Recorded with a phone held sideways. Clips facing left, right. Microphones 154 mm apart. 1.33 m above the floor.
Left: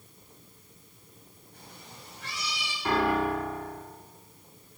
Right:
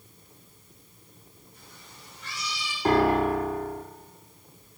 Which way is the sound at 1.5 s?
70° left (ahead or behind).